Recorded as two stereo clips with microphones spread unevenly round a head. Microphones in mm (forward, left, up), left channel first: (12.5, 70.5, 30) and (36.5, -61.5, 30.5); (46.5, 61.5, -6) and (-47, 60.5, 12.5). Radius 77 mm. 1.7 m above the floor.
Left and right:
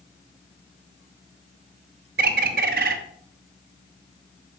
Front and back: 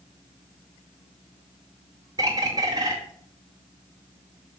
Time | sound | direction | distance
2.2 | a bird | 110° right | 0.5 m